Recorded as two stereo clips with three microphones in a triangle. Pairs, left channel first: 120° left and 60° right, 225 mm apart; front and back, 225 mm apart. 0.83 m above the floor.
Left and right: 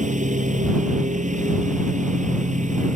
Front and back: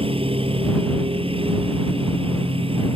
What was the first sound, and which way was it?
A lawn mower, 115° right.